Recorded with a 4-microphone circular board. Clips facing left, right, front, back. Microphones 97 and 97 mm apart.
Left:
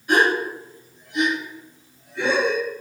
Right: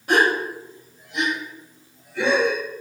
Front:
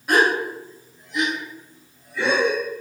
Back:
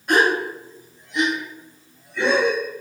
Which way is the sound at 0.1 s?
85° right.